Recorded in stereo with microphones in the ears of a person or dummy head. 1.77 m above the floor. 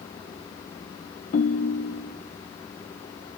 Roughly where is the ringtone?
Left.